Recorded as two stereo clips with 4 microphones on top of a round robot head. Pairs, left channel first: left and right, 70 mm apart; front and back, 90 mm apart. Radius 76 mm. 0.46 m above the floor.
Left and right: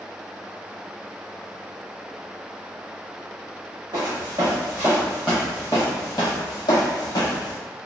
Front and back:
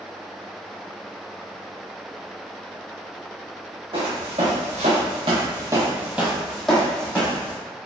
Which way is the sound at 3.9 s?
140° right.